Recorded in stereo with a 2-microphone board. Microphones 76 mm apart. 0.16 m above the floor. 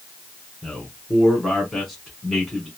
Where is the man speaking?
Centre (ahead or behind), 1.1 m.